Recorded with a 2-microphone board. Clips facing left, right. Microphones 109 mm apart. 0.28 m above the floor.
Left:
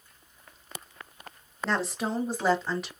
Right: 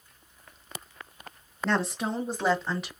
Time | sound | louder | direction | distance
1.6 | a woman speaking | right 1 dB | centre (ahead or behind) | 1.3 m